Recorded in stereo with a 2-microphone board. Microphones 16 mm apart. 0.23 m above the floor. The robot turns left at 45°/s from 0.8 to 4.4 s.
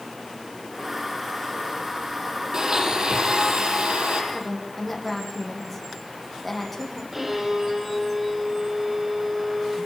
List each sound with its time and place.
2.5 s a blender: 30° right, 7.5 m; by 4.2 s 105° right, 7.5 m
4.3 s a woman speaking: 10° left (ahead or behind), 8.5 m; by 7.0 s 5° left (ahead or behind), 8.5 m
7.1 s a violin: 15° right (ahead or behind), 8 m